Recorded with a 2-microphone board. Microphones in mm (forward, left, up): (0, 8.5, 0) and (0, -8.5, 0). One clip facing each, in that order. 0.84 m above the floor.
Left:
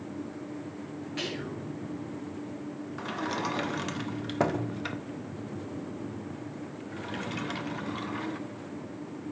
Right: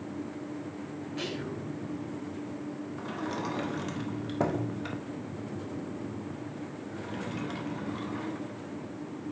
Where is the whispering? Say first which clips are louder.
Left 1 dB; 40° left (ahead or behind), 3.5 m.